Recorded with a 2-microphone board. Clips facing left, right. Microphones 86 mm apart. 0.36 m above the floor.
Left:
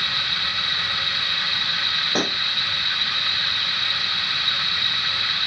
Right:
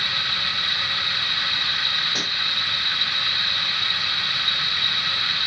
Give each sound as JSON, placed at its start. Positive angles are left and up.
{"t": 2.1, "sound": "a pop", "side_deg": 45}